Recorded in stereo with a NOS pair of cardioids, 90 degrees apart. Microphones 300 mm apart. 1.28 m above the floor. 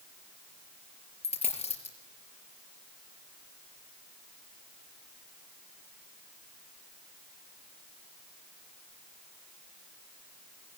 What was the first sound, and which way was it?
A dropped coin, 20° left.